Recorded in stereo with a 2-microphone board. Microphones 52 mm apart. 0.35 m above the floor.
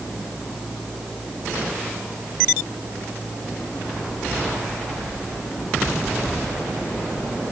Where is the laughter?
I don't hear laughter.